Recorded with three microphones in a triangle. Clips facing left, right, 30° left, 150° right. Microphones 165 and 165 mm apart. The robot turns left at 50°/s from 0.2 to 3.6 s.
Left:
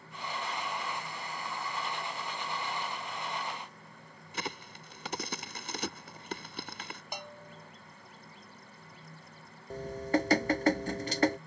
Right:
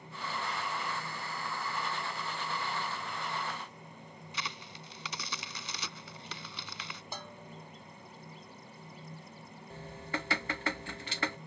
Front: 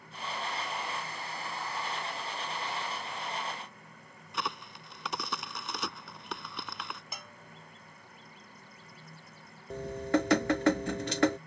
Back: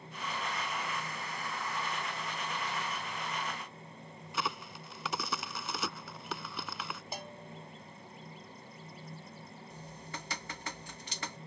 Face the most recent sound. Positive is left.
turn(degrees=45)